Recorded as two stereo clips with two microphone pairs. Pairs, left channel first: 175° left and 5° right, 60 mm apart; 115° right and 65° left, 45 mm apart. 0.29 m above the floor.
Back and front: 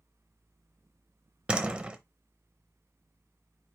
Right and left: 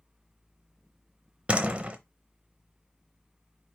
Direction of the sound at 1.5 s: 45° left.